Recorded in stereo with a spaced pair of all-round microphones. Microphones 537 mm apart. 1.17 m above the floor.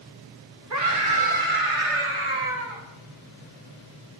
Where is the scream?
30° right (ahead or behind), 1.9 m; by 2.8 s 60° right (ahead or behind), 2.5 m.